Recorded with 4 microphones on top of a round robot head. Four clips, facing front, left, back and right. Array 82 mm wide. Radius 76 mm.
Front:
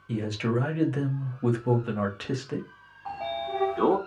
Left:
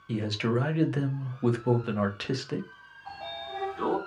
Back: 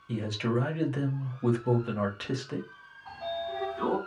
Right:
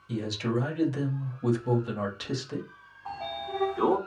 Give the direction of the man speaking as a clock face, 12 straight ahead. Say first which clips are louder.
Left 1 dB, front 2 dB; 9 o'clock.